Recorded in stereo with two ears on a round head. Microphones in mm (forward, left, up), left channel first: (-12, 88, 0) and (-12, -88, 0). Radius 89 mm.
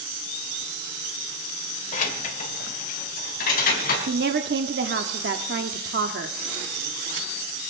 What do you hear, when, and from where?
1.9 s keys jangling: 40° left (ahead or behind), 1.7 m; by 4.0 s 45° left (ahead or behind), 4 m
4.1 s a woman speaking: 55° right (ahead or behind), 1.0 m